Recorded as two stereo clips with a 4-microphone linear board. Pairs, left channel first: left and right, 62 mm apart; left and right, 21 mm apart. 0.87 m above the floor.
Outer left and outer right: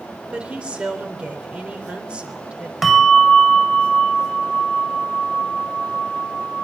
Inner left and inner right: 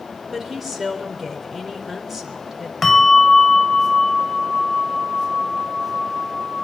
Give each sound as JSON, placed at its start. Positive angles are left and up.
{"t": 0.3, "sound": "a woman speaking", "side_deg": -20, "distance_m": 3.5}
{"t": 2.8, "sound": "a bell", "side_deg": -5, "distance_m": 1.5}